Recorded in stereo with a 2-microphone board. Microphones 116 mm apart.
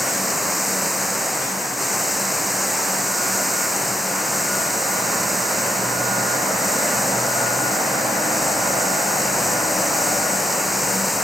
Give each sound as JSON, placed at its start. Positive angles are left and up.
{"t": 0.0, "sound": "running water", "side_deg": 0}